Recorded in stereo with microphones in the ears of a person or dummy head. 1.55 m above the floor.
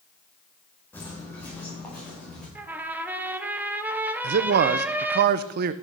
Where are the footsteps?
15° left (ahead or behind), 4.5 m; by 2.5 s 10° left (ahead or behind), 5.5 m.